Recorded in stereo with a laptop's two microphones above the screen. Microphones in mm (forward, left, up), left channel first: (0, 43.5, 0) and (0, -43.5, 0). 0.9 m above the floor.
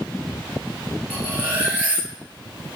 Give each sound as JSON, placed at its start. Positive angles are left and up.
{"t": 1.1, "sound": "cutlery clinking", "side_deg": -15, "distance_m": 9.0}